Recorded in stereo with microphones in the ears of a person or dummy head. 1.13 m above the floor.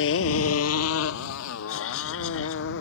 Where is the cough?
80° left.